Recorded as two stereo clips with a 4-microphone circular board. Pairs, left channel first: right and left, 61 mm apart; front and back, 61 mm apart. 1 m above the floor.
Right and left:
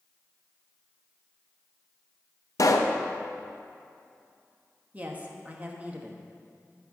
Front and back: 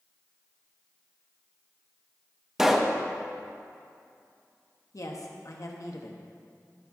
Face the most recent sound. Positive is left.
turn(degrees=25)